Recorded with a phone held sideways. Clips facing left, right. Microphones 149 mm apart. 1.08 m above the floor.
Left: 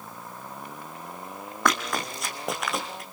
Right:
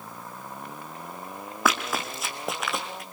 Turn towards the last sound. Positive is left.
turn(degrees=0)  # may be behind; listen again after turning